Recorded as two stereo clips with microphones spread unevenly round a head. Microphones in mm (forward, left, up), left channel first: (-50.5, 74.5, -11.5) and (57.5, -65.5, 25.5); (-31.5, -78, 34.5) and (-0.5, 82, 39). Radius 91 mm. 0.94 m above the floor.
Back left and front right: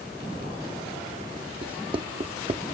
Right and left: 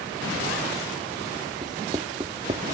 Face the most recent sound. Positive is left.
turn(degrees=10)